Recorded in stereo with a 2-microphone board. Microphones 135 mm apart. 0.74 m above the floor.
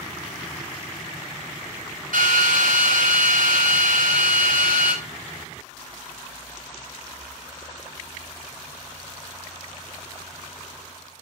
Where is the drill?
80° right, 5 m.